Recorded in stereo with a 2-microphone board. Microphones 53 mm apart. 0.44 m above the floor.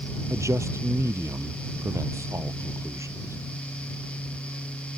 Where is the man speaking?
65° right (ahead or behind).